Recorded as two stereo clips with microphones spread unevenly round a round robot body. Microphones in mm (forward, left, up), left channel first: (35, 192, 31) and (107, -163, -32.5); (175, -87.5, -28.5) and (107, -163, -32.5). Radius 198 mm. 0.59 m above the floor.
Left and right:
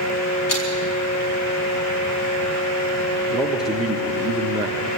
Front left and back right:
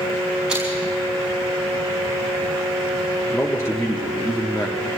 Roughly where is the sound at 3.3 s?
Ahead.